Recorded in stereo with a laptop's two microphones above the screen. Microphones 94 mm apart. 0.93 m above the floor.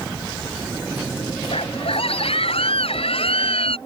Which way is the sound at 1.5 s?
90° left.